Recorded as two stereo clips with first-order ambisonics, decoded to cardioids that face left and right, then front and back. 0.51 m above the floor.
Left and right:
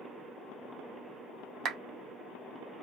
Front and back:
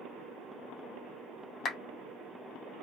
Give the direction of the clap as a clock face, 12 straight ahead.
2 o'clock.